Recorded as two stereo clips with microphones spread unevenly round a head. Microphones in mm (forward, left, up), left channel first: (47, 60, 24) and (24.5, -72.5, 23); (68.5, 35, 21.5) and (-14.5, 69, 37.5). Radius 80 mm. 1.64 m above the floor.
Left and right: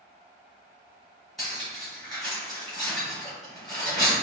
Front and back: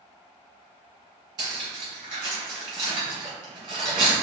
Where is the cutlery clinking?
170° left, 1.1 m.